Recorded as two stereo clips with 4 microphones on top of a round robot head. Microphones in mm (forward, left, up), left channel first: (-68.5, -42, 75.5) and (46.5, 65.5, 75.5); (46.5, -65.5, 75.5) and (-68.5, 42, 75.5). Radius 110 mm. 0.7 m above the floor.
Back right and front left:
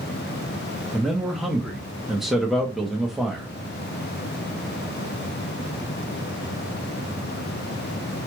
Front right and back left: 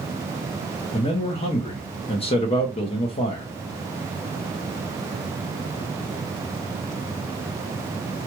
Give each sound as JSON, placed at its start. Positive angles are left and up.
{"t": 0.9, "sound": "a man speaking", "azimuth_deg": -45, "distance_m": 1.1}